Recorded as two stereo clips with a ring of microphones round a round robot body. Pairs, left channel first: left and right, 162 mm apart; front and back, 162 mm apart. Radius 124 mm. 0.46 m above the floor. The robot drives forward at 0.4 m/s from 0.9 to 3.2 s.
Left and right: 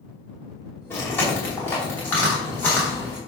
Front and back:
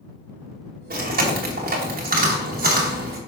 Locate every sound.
0.9 s chewing: 165° left, 2.5 m; by 3.2 s 170° left, 3 m